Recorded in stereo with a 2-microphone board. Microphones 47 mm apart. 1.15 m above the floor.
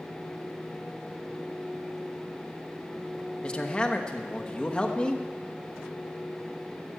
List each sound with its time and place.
3.4 s a man speaking: 20° left (ahead or behind), 1.1 m